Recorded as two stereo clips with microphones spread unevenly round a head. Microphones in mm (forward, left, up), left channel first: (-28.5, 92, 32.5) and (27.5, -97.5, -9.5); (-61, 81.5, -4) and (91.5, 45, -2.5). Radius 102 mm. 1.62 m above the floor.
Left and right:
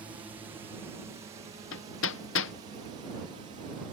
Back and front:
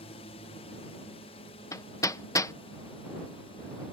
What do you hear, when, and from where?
0.0 s a drone: 145° right; by 3.9 s 130° right
1.7 s hammering: 95° left